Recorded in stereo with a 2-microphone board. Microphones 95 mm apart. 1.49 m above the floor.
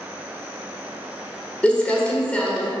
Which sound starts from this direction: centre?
Crumpling, at 1.6 s.